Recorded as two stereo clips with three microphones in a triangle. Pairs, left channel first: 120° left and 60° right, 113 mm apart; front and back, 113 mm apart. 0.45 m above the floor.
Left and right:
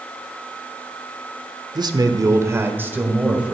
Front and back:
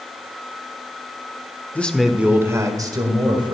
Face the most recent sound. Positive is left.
turn(degrees=-140)